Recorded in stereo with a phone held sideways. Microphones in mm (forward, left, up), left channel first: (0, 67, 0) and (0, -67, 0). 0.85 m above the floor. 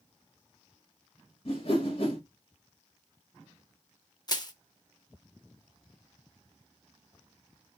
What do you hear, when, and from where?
1.4 s a whoosh: 45° left (ahead or behind), 1.7 m
4.3 s crushing: 35° left (ahead or behind), 0.5 m